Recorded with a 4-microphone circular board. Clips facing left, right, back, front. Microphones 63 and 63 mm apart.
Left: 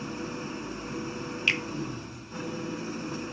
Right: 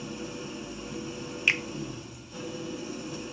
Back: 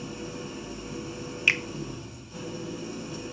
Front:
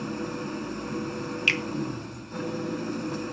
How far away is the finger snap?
About 1.3 m.